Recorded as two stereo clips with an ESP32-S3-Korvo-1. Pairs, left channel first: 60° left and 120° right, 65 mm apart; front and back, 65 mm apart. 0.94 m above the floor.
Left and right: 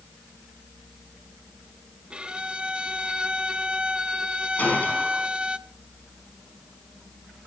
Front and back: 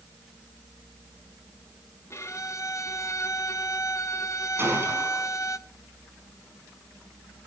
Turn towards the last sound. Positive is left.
turn(degrees=125)